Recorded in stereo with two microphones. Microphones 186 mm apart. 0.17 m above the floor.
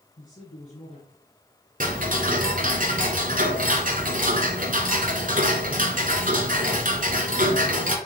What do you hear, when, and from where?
0.2 s a man speaking: 50° left (ahead or behind), 2 m
1.8 s ticking: 50° right (ahead or behind), 1.3 m